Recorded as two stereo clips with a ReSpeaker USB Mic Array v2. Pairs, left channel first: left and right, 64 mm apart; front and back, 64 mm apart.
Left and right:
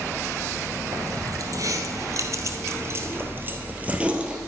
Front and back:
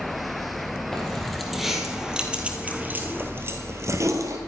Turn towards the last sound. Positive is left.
turn(degrees=-165)